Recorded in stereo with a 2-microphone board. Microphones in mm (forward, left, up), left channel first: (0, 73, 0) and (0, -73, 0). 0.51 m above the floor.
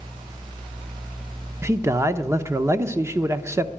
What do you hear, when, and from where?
1.6 s a man speaking: 20° right (ahead or behind), 0.7 m